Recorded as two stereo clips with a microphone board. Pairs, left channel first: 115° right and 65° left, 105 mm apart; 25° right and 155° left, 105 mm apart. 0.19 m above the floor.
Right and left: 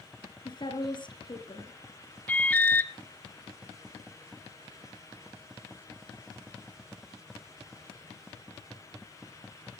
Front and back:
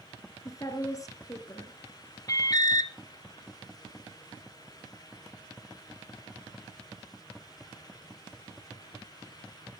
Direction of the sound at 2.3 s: 45° right.